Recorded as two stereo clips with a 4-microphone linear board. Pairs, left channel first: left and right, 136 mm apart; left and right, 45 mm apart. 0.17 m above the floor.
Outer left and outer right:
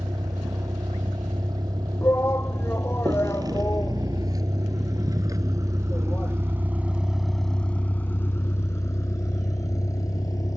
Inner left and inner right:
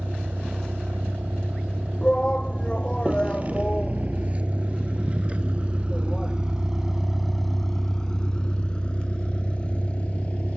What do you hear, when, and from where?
0.0 s a vehicle: 30° right (ahead or behind); by 10.6 s 25° left (ahead or behind)
2.0 s a shout: 15° left (ahead or behind)